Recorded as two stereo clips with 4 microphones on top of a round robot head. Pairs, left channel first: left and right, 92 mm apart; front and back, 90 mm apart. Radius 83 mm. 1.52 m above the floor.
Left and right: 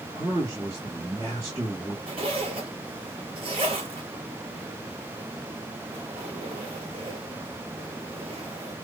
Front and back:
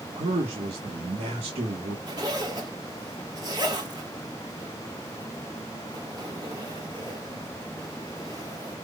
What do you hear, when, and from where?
0.1 s a man speaking: 155° right, 1.3 m
2.1 s a zipper: 120° right, 1.1 m